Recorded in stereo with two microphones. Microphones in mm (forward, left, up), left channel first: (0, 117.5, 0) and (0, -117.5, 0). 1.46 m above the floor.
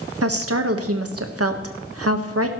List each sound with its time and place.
0.2 s a woman speaking: 80° right, 1.4 m